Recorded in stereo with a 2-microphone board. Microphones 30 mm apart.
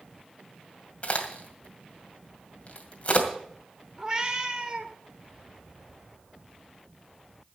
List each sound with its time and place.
1.0 s a crack: 40° left (ahead or behind), 2 m
4.0 s a cat meowing: 20° right (ahead or behind), 1.5 m